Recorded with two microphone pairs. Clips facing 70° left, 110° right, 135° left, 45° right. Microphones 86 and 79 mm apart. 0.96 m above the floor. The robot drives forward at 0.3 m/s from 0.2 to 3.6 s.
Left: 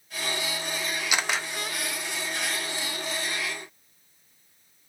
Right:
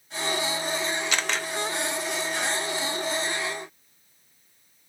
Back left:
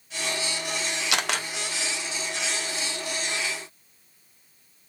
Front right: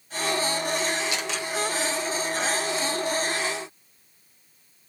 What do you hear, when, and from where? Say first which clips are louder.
1.1 s a camera shutter: even, back left 2 dB; 150° left, 0.5 m; by 1.5 s 155° left, 0.6 m